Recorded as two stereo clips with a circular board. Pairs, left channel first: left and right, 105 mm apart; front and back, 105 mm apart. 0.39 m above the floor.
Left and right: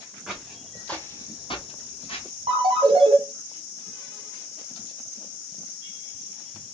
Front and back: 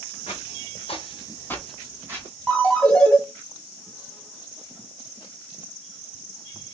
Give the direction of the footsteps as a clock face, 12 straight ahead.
12 o'clock.